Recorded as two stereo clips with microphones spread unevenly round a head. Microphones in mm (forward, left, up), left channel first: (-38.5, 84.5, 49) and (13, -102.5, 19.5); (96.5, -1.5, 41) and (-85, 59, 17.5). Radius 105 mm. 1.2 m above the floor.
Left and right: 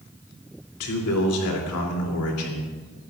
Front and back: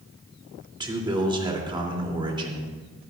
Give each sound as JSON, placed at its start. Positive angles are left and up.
{"t": 0.8, "sound": "a man speaking", "azimuth_deg": 95, "distance_m": 3.0}